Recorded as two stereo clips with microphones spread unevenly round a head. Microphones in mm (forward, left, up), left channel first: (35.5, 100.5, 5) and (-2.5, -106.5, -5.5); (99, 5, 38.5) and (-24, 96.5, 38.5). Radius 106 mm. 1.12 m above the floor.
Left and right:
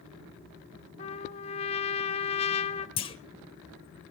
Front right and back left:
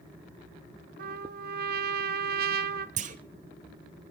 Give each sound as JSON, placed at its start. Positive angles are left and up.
{"t": 1.0, "sound": "a trumpet", "azimuth_deg": 135, "distance_m": 0.9}
{"t": 3.0, "sound": "a clunk", "azimuth_deg": 135, "distance_m": 1.1}